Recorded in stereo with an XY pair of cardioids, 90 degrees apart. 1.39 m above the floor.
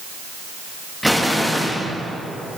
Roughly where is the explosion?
Ahead.